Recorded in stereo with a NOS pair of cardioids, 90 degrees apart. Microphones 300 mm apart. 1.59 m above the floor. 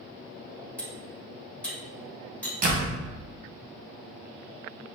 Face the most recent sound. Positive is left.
turn(degrees=-30)